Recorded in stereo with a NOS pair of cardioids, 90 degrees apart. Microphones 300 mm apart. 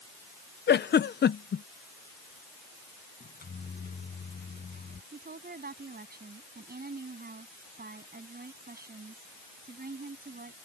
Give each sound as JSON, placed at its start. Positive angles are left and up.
{"t": 0.7, "sound": "a giggle", "azimuth_deg": 35}
{"t": 3.2, "sound": "a microwave", "azimuth_deg": 30}
{"t": 5.1, "sound": "a woman speaking", "azimuth_deg": -30}